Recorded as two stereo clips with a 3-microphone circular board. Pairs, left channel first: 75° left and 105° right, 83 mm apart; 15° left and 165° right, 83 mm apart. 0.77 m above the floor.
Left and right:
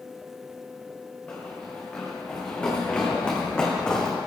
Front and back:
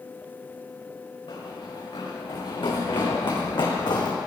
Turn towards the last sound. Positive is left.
turn(degrees=-5)